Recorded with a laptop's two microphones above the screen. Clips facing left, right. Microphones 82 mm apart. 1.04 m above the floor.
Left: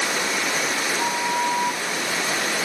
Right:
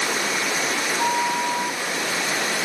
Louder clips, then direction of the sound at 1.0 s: Right 2 dB; 65° left (ahead or behind).